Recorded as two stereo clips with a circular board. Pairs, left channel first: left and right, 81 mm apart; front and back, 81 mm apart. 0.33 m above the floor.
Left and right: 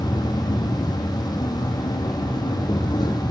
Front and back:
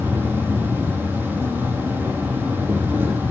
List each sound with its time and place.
0.0 s an insect: 115° left, 1.3 m